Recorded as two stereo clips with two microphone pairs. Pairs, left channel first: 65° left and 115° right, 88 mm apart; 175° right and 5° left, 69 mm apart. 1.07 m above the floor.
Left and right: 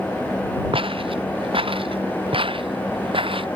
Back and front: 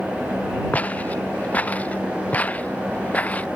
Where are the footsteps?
105° right.